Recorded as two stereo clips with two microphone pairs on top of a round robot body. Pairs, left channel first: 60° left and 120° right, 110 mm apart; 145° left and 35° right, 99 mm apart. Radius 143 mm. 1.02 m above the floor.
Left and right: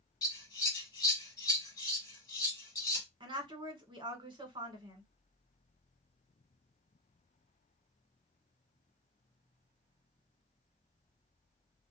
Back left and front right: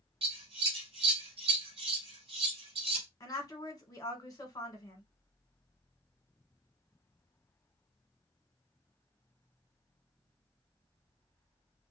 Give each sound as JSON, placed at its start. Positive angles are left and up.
{"t": 0.2, "sound": "scissors", "azimuth_deg": -5, "distance_m": 1.2}
{"t": 3.2, "sound": "a woman speaking", "azimuth_deg": -165, "distance_m": 1.5}